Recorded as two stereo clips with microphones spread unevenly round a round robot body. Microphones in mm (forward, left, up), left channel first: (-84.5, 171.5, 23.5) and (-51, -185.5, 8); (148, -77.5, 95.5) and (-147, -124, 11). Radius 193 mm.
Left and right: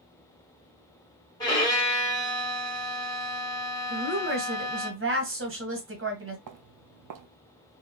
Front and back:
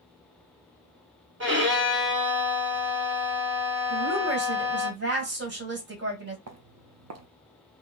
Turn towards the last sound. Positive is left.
turn(degrees=-125)